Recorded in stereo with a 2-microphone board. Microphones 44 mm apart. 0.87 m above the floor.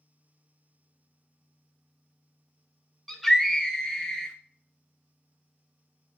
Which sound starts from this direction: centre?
A scream, at 3.1 s.